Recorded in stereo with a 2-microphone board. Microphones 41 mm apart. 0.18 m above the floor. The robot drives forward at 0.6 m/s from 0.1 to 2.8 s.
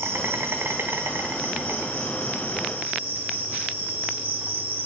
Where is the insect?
85° right, 1.3 m; by 4.9 s 35° right (ahead or behind), 2 m.